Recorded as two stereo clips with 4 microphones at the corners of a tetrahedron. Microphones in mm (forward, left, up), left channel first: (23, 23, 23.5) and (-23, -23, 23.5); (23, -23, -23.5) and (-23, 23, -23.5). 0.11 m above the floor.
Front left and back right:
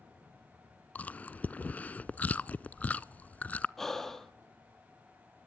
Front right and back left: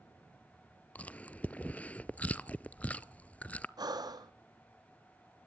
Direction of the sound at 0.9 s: Straight ahead.